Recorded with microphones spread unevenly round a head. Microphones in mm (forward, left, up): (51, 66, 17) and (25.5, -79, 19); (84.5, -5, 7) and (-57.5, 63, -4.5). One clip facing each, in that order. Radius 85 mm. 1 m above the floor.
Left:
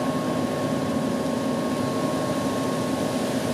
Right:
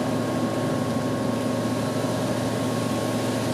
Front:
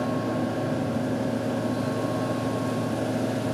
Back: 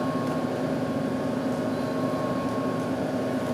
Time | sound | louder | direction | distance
0.0 | a fan | even, even | 95° left | 1.9 m